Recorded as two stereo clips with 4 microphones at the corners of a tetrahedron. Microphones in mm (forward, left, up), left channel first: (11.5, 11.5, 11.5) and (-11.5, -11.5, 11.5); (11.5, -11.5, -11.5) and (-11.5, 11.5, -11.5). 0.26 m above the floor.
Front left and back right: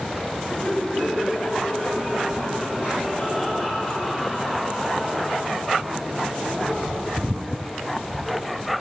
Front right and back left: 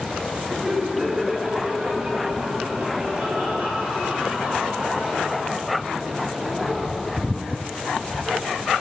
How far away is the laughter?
About 2 m.